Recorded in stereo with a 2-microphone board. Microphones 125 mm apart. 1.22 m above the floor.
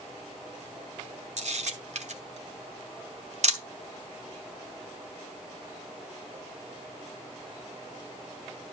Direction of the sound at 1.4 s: 70° right (ahead or behind).